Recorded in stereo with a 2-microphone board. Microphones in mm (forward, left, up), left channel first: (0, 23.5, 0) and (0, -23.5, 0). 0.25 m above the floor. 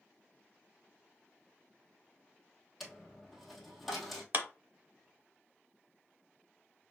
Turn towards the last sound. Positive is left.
turn(degrees=-40)  # may be behind; listen again after turning